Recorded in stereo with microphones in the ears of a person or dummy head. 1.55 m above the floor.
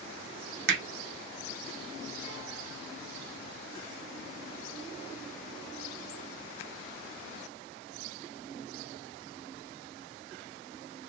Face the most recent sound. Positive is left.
turn(degrees=-70)  # may be behind; listen again after turning